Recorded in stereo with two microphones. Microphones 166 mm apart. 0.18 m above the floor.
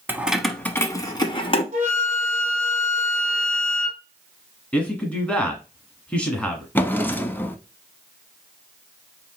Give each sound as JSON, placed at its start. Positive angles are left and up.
{"t": 0.1, "sound": "keys jangling", "side_deg": -15, "distance_m": 0.7}
{"t": 1.7, "sound": "a flute", "side_deg": -45, "distance_m": 1.9}
{"t": 4.7, "sound": "a man speaking", "side_deg": 10, "distance_m": 1.3}
{"t": 6.8, "sound": "a drawer", "side_deg": 10, "distance_m": 0.5}